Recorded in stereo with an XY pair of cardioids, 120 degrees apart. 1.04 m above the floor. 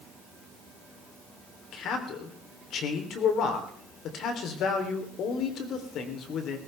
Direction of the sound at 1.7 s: 65° left.